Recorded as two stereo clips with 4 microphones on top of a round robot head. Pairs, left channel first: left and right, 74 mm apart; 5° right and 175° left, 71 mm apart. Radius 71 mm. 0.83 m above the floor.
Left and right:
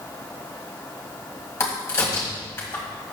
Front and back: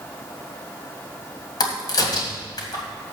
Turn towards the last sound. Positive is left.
turn(degrees=25)